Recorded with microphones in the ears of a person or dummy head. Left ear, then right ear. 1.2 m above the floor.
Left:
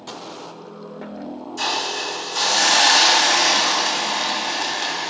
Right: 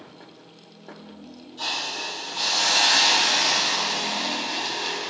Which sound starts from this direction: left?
A hiss, at 1.6 s.